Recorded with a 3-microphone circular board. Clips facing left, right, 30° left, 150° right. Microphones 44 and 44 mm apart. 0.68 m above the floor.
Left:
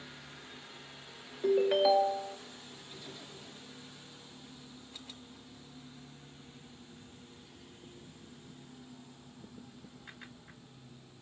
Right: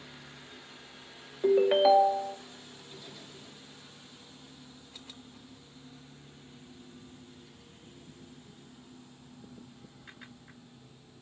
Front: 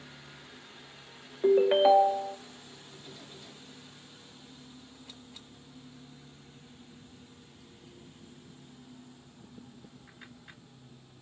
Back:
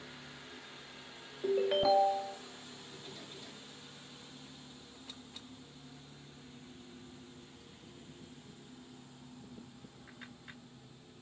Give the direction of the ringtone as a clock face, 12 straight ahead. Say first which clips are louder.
Right 4 dB, front 8 dB; 1 o'clock.